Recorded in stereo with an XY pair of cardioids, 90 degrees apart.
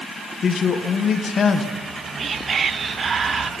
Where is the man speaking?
55° left, 1.1 m.